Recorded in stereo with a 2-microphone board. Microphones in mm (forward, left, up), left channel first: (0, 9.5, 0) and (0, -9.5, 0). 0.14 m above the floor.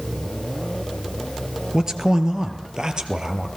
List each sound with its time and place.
1.7 s a man speaking: 30° right (ahead or behind), 2 m; by 3.5 s 40° right (ahead or behind), 3 m